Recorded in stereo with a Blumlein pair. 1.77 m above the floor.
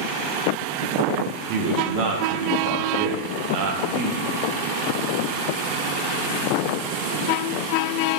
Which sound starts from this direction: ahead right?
A man speaking, at 1.5 s.